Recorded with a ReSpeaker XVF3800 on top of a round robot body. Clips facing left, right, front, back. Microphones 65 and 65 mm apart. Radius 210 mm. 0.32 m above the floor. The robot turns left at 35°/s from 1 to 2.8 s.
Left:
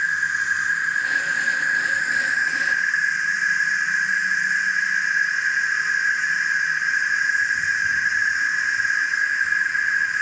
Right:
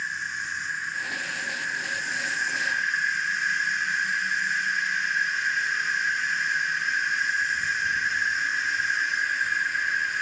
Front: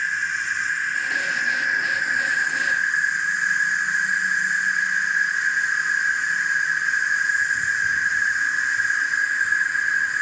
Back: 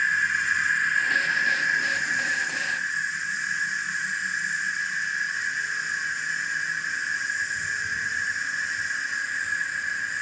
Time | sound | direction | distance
0.0 | an insect | 85° left | 1.5 m